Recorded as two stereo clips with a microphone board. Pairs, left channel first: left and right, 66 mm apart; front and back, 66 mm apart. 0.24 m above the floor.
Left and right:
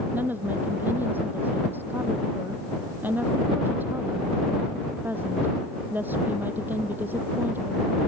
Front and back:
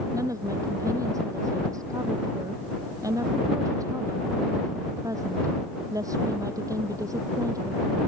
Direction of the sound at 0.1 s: 150° right.